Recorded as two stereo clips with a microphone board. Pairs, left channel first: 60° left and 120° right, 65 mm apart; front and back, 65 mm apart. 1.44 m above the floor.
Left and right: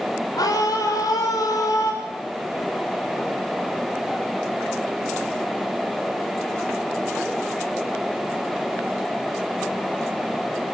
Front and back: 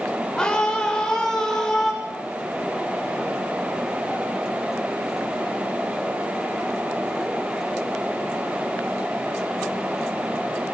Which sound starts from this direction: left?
A scream, at 0.4 s.